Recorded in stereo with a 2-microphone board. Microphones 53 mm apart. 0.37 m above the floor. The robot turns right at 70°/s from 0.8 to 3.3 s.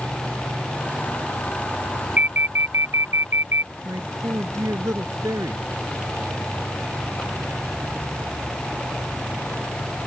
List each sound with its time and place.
2.2 s an alarm: 145° right; by 3.7 s 65° right
3.9 s a man speaking: 75° right (ahead or behind)